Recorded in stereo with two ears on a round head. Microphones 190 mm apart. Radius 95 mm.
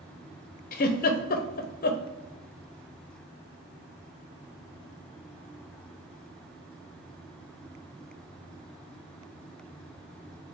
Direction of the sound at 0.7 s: 40° left (ahead or behind).